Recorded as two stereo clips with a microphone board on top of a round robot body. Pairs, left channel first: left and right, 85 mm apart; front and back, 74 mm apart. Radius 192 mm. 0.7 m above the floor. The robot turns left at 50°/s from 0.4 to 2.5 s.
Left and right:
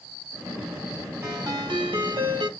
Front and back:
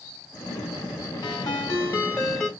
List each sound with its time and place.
1.2 s a ringtone: 30° right, 3 m; by 2.5 s 90° right, 3 m